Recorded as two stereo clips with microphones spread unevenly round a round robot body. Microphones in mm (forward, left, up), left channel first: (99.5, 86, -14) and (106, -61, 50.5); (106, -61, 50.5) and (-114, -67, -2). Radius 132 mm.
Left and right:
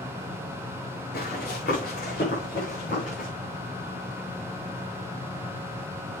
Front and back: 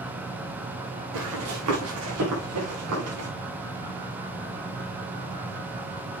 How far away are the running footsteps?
About 5 m.